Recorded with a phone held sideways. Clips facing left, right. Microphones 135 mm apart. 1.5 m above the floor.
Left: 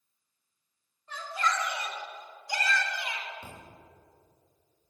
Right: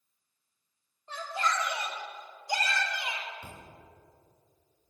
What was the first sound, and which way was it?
A shout, 30° right (ahead or behind).